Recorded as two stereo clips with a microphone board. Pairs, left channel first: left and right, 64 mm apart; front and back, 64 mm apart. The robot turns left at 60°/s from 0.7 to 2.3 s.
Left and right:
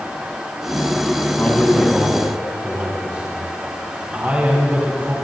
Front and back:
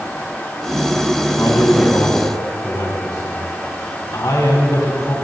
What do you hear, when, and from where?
1.4 s a man speaking: 30° left, 3.5 m; by 5.2 s 25° right, 3.5 m